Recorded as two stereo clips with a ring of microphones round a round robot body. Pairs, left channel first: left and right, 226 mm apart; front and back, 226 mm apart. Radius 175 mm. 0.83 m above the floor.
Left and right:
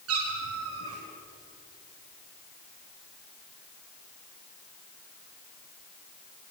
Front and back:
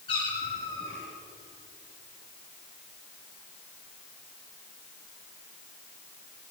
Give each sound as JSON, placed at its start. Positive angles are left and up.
{"t": 0.1, "sound": "a cat meowing", "azimuth_deg": -75, "distance_m": 4.5}